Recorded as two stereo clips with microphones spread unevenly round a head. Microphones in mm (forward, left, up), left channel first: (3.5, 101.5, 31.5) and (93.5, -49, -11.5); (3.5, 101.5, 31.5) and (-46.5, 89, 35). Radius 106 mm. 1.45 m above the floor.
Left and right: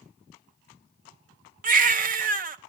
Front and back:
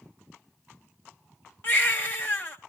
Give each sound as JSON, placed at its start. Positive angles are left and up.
{"t": 1.6, "sound": "a baby crying", "azimuth_deg": -35, "distance_m": 0.7}